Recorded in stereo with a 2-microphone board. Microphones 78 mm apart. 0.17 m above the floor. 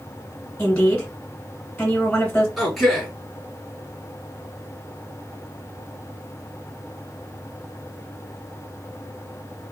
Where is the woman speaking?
20° left (ahead or behind), 1.9 m.